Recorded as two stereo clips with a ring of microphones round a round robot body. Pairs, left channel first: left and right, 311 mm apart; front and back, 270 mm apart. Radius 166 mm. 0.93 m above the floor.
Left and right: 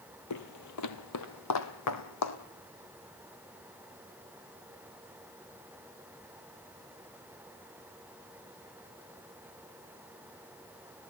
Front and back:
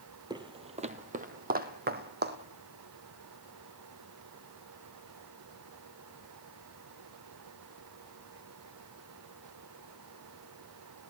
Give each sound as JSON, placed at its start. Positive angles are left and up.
{"t": 0.3, "sound": "footsteps", "azimuth_deg": 110, "distance_m": 1.3}